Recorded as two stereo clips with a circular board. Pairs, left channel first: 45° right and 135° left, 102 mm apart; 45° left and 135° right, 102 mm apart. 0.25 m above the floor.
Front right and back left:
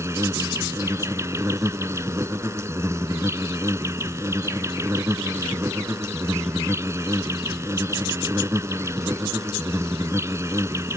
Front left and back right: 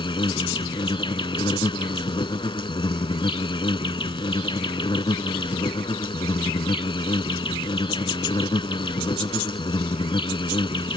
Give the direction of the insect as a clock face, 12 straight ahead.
9 o'clock.